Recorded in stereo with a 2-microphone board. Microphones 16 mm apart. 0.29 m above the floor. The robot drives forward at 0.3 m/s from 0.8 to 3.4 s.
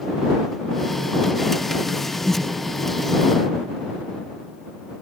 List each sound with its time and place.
2.2 s breathing: 20° left (ahead or behind), 2.0 m